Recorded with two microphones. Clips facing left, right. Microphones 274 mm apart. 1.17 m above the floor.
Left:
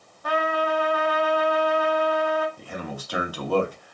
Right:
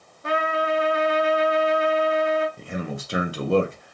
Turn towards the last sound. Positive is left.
turn(degrees=-25)  # may be behind; listen again after turning